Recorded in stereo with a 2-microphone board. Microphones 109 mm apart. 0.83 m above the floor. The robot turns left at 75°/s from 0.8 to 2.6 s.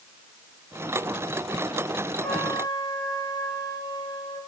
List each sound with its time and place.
2.2 s a trumpet: 10° left (ahead or behind), 3 m; by 4.4 s 40° left (ahead or behind), 3 m